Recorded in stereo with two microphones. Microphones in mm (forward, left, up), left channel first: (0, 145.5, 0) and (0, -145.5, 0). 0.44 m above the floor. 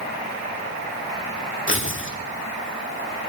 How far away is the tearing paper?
About 1.1 m.